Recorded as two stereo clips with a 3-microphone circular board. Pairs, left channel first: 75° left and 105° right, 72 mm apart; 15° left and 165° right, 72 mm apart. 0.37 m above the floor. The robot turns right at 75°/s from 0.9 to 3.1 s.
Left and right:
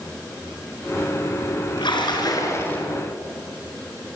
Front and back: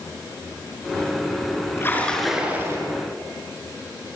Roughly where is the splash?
Left.